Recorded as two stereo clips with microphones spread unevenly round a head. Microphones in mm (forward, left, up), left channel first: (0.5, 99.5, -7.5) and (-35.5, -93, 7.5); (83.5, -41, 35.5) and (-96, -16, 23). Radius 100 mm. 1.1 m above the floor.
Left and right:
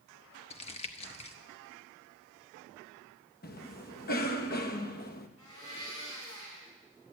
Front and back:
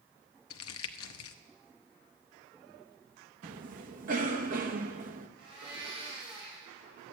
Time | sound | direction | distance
0.5 | crumpling | 15° left | 0.7 m
3.4 | a cough | 125° left | 1.3 m
5.4 | a blender | 100° left | 6.5 m